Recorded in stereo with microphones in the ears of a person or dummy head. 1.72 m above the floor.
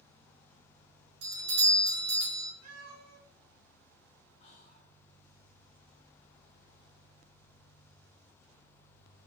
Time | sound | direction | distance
1.2 | a doorbell | 75° right (ahead or behind) | 1.9 m
2.6 | a cat meowing | 60° right (ahead or behind) | 2.0 m
4.4 | whispering | 45° left (ahead or behind) | 1.2 m